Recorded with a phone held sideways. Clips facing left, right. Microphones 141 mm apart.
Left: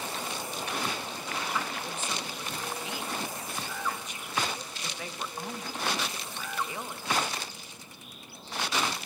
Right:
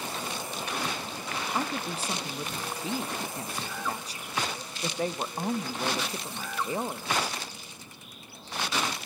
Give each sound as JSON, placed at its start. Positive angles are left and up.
{"t": 1.5, "sound": "a woman speaking", "side_deg": -35, "distance_m": 1.1}